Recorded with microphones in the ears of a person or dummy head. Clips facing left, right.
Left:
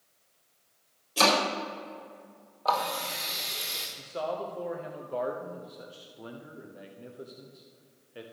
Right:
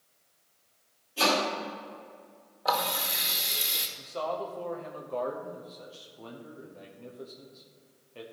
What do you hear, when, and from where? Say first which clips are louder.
1.2 s chopping: left 2 dB; 75° left (ahead or behind), 4 m
2.6 s a running tap: left 1 dB; 10° right (ahead or behind), 1.2 m
4.0 s a man speaking: even; 15° left (ahead or behind), 1.0 m